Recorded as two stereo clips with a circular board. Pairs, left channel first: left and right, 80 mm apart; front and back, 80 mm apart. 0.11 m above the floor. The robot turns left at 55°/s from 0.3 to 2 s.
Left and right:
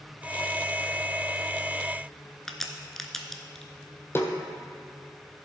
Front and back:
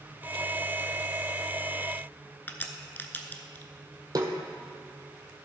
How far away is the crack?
About 0.8 m.